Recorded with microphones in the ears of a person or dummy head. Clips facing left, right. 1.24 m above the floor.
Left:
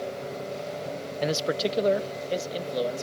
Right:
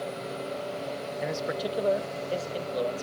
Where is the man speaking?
50° left (ahead or behind); by 3.0 s 15° left (ahead or behind).